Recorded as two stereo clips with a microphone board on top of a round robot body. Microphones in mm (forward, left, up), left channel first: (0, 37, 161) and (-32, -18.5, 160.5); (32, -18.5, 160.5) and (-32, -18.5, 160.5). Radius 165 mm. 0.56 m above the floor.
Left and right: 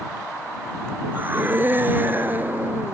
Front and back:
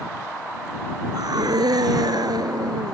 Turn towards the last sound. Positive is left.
turn(degrees=180)